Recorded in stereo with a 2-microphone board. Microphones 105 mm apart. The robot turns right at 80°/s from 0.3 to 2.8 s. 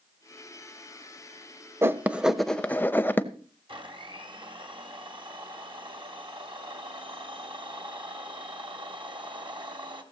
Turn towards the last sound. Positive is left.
turn(degrees=-55)  # may be behind; listen again after turning